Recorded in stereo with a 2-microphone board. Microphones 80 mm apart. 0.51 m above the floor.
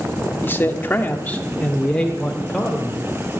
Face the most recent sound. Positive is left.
turn(degrees=0)  # may be behind; listen again after turning